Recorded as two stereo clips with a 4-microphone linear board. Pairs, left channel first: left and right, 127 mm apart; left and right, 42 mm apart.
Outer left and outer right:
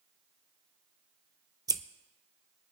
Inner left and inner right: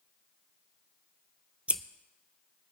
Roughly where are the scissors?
Right.